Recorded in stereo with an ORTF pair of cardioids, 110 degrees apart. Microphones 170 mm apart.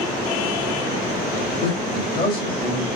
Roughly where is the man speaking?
Ahead left.